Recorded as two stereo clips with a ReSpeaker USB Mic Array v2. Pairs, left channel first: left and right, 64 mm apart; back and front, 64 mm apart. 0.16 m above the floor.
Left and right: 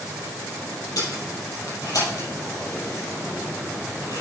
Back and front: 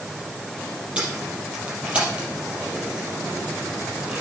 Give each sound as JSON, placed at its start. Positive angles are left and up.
{"t": 1.0, "sound": "tape being pulled", "azimuth_deg": 70, "distance_m": 4.0}